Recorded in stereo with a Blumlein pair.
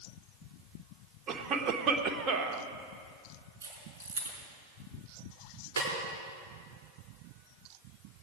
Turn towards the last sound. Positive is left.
turn(degrees=-65)